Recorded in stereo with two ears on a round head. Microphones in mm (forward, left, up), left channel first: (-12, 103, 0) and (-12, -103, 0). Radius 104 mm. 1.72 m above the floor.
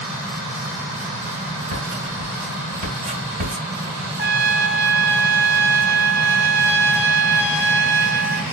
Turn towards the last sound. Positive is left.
turn(degrees=-20)  # may be behind; listen again after turning